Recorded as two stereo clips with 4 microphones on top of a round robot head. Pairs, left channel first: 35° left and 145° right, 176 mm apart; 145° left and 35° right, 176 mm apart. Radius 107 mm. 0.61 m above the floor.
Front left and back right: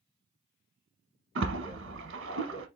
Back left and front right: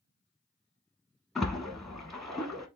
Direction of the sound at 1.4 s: 125° right.